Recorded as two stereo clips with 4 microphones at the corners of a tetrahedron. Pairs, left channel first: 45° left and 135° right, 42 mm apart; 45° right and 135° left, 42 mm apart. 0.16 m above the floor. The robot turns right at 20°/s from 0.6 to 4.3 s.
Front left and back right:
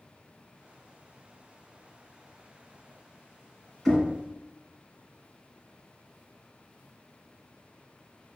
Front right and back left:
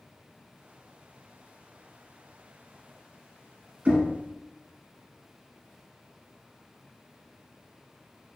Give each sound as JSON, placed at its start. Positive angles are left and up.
{"t": 3.9, "sound": "knocking", "azimuth_deg": 125, "distance_m": 1.2}